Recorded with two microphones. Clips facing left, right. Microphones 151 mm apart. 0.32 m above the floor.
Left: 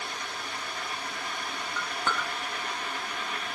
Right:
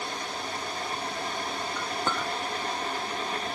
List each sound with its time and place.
1.8 s a clink: 15° right (ahead or behind), 2 m